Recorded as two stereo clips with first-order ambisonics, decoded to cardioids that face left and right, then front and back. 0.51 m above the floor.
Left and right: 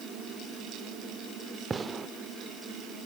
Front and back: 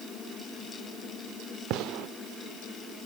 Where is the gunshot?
160° right, 0.9 m.